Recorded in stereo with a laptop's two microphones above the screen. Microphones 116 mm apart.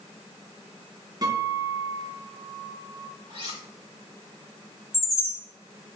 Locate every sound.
1.2 s a guitar: 35° right (ahead or behind), 2 m
3.3 s cutlery clinking: 40° right (ahead or behind), 3.5 m
4.9 s a chime: 20° left (ahead or behind), 2.5 m